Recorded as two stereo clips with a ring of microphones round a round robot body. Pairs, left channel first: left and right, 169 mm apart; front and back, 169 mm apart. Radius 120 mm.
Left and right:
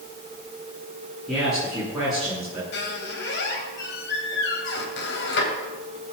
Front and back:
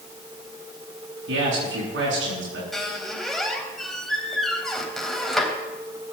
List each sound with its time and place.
1.3 s a man speaking: straight behind, 8.5 m
2.7 s a squeak: 90° left, 3.5 m